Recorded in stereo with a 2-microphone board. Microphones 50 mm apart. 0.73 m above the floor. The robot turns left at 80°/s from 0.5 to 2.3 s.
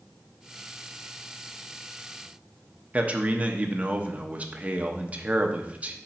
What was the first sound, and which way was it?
A man speaking, 30° right (ahead or behind).